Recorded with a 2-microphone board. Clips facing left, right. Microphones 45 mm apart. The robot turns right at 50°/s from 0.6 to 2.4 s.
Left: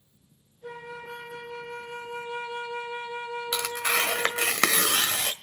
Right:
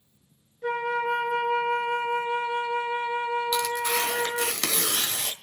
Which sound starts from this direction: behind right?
A flute, at 0.6 s.